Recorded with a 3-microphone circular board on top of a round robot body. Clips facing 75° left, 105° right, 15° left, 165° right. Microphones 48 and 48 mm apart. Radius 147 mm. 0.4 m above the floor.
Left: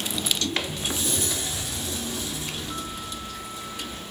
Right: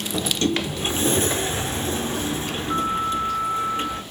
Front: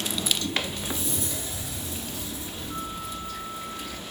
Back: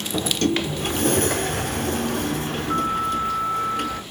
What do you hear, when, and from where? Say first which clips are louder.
0.1 s a sliding door: right 6 dB, back 9 dB; 155° right, 1.1 m